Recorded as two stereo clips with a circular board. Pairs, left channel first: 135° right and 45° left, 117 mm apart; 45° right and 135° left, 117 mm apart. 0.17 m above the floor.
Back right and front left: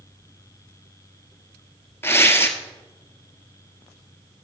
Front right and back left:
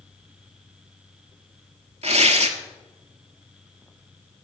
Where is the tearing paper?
155° left, 1.2 m.